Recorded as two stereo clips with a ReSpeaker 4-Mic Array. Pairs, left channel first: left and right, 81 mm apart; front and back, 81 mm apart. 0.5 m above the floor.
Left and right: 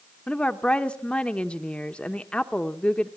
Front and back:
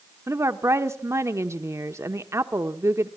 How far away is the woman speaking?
About 0.9 m.